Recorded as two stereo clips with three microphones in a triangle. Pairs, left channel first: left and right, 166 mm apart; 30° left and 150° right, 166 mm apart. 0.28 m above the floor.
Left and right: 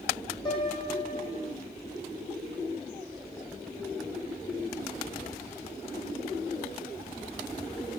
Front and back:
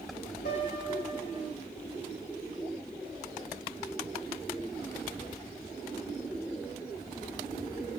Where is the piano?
25° left, 10 m.